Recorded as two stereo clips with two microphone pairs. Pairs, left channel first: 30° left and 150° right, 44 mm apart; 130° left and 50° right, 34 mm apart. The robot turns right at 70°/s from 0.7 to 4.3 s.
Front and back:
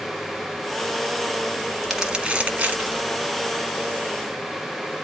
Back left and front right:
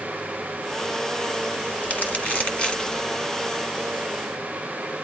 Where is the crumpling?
120° left, 1.7 m; by 3.0 s 155° right, 1.7 m.